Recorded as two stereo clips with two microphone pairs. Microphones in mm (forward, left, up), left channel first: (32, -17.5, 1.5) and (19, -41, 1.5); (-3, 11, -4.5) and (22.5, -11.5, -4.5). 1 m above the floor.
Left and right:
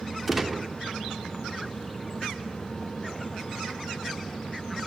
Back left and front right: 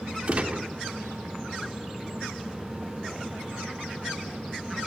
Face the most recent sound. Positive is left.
turn(degrees=-35)